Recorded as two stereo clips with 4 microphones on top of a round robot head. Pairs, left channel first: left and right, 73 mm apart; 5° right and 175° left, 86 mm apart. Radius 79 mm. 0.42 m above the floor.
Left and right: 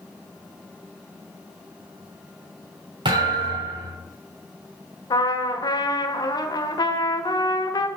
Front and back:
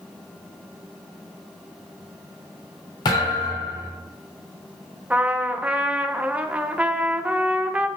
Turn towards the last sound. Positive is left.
turn(degrees=105)